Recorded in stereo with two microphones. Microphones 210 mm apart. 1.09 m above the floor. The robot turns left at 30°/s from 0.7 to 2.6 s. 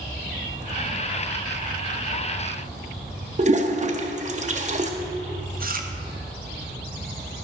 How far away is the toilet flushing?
About 0.6 m.